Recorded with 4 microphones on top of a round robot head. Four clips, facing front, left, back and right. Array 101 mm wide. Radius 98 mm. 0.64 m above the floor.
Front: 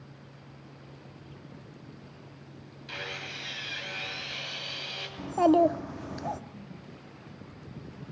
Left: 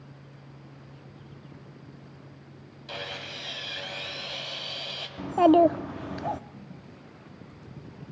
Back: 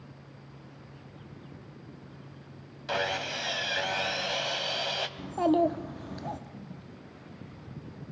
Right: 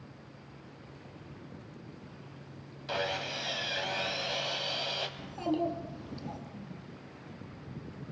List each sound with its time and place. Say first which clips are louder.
2.9 s sawing: right 5 dB, back 10 dB; 170° right, 2 m
5.2 s a child speaking: left 15 dB, front 4 dB; 75° left, 0.8 m